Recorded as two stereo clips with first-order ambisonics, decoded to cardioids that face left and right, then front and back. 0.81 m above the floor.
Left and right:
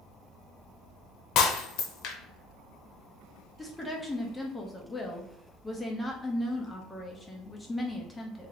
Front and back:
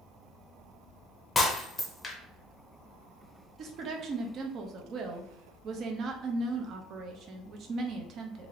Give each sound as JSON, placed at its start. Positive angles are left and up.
{"t": 1.4, "sound": "breaking glass", "azimuth_deg": 75, "distance_m": 0.7}
{"t": 3.6, "sound": "a woman speaking", "azimuth_deg": 165, "distance_m": 0.5}